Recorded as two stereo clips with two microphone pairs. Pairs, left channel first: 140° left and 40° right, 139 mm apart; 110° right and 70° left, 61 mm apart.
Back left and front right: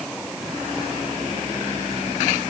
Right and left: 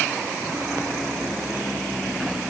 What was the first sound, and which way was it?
Only background noise.